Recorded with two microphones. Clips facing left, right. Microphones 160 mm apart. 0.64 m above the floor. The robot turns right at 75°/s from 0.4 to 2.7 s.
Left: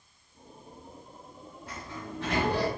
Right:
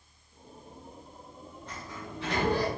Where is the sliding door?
5° left, 2 m; by 2.7 s 85° left, 2 m.